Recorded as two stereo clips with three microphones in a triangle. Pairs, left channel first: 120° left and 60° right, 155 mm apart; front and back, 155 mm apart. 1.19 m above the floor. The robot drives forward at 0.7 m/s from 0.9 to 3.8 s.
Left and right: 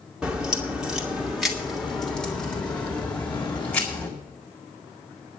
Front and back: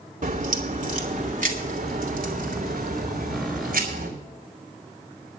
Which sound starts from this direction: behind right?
A crack, at 0.2 s.